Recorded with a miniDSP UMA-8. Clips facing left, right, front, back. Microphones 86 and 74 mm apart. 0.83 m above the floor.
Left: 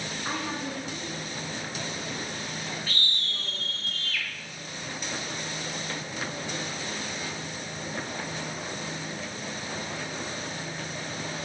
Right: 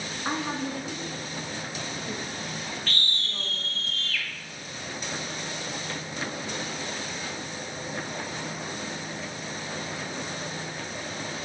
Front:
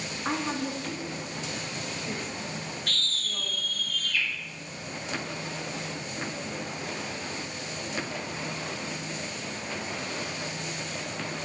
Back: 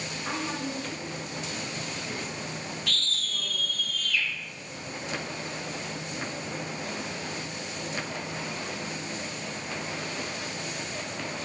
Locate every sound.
0.2 s a woman speaking: 35° right, 0.7 m
2.9 s a scream: 15° left, 1.0 m